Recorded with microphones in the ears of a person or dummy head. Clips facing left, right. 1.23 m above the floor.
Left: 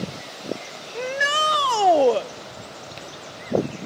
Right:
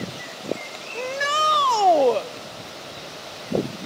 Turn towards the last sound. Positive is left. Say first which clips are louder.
# even
turn(degrees=10)  # may be behind; listen again after turning